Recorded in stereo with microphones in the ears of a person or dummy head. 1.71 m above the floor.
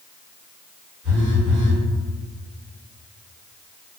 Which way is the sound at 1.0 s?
40° right (ahead or behind).